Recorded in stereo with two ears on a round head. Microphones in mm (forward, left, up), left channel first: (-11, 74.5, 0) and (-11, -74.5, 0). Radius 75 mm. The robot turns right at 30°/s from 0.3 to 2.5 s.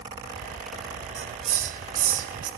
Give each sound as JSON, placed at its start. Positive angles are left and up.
{"t": 1.2, "sound": "a hiss", "side_deg": -40, "distance_m": 0.6}